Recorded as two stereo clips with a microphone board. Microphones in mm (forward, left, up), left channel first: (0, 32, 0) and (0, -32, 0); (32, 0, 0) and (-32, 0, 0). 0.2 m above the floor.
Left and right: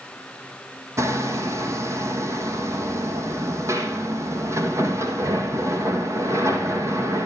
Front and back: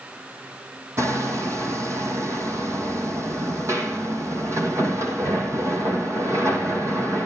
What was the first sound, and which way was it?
Hammering, 135° right.